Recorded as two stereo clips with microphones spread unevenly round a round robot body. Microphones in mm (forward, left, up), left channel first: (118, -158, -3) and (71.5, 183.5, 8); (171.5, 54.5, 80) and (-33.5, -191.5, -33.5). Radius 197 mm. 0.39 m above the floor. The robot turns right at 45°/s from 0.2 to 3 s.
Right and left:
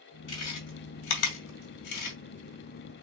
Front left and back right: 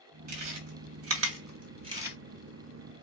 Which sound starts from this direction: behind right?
Chewing, at 0.3 s.